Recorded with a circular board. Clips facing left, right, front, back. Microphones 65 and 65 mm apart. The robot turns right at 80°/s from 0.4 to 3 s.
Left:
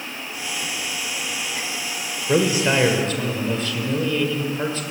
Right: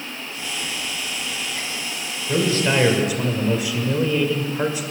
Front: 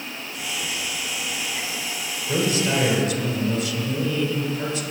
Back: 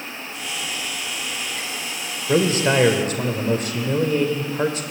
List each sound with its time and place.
2.3 s a man speaking: 140° left, 1.7 m; by 4.8 s 165° right, 1.7 m